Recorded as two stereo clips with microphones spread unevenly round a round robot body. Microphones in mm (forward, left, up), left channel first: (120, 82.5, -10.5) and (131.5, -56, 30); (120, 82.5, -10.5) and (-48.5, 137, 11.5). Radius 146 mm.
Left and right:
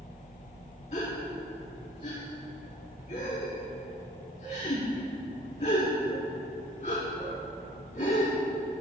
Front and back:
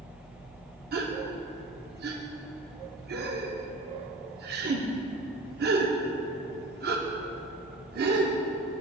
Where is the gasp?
165° left, 0.6 m.